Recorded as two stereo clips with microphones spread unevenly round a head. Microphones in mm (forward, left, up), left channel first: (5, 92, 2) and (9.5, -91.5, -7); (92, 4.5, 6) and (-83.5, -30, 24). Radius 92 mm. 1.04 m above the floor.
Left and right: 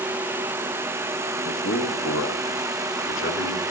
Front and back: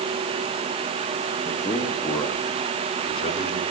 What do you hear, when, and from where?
1.4 s a man speaking: 105° left, 1.5 m; by 3.6 s 70° left, 2.5 m